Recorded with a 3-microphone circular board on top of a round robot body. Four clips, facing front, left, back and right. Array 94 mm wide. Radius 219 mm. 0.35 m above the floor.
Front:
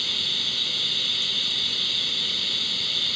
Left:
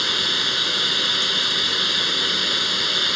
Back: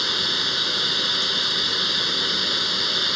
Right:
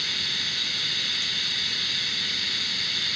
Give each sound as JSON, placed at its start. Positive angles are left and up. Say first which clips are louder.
{"t": 0.0, "sound": "running water", "louder": "left 10 dB, back 9 dB", "azimuth_deg": 130}